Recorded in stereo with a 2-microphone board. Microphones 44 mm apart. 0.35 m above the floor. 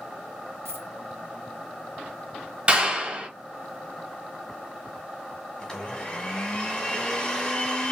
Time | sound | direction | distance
0.7 | a dropped coin | 80° right | 1.4 m
2.7 | a clap | 30° right (ahead or behind) | 1.2 m
5.6 | a blender | 20° left (ahead or behind) | 1.3 m